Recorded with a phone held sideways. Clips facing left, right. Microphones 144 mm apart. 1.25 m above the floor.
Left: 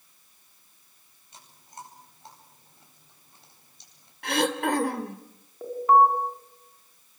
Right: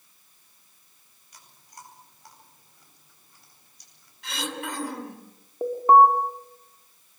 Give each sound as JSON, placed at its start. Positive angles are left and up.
{"t": 1.3, "sound": "chewing", "side_deg": 25, "distance_m": 9.5}
{"t": 4.2, "sound": "throat clearing", "side_deg": 60, "distance_m": 2.5}
{"t": 5.6, "sound": "an alarm", "side_deg": -35, "distance_m": 4.5}